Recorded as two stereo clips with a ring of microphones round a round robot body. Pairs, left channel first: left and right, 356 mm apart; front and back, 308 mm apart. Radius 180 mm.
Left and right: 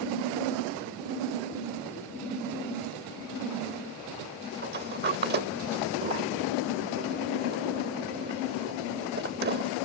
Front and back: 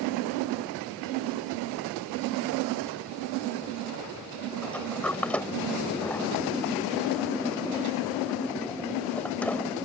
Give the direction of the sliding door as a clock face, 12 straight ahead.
3 o'clock.